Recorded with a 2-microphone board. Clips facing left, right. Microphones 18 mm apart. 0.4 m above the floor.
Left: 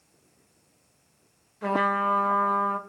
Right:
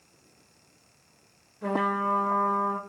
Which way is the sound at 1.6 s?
35° left (ahead or behind).